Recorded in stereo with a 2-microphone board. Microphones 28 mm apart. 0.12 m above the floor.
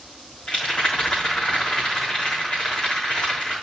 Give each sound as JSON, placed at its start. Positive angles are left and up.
{"t": 0.5, "sound": "a rattle", "side_deg": 60, "distance_m": 3.5}